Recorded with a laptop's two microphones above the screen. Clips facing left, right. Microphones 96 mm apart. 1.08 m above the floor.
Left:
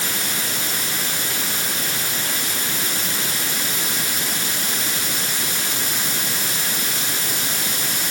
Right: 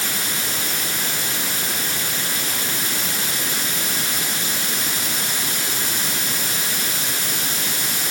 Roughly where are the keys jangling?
I don't hear keys jangling.